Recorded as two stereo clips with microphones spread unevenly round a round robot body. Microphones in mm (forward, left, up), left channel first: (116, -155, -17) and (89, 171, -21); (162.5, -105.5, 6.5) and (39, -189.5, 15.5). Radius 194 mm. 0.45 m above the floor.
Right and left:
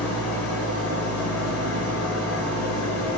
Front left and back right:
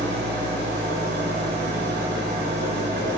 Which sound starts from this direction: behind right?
An engine running, at 0.0 s.